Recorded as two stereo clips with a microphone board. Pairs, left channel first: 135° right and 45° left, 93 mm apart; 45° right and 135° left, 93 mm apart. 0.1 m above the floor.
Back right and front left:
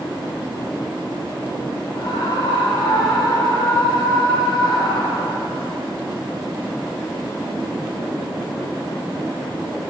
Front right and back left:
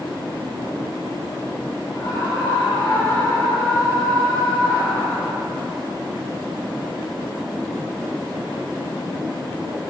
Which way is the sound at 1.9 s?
95° right.